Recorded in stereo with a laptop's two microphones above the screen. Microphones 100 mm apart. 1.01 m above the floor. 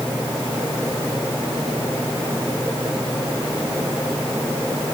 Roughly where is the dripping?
I don't hear dripping.